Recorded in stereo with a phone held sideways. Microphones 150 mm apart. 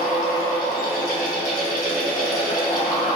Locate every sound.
0.0 s a fan: 65° left (ahead or behind), 1.3 m